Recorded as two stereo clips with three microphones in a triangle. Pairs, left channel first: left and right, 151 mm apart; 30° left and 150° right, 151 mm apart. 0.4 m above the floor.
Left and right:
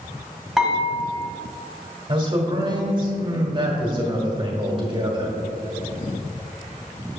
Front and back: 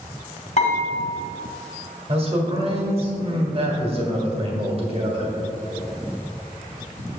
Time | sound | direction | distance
0.6 | dishes clattering | straight ahead | 1.7 m
2.1 | a man speaking | 130° right | 1.6 m